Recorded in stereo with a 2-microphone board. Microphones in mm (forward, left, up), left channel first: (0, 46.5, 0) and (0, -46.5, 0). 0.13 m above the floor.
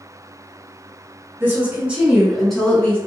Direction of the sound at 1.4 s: 20° right (ahead or behind).